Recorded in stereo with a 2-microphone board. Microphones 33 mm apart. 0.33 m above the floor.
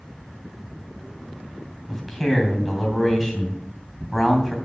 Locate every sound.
1.9 s a man speaking: 5° right (ahead or behind), 3 m